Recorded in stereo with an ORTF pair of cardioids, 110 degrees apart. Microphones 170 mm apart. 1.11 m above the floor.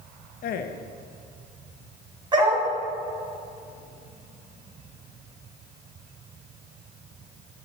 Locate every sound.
0.4 s a man speaking: 60° left, 0.8 m
2.3 s a dog barking: 25° right, 2.5 m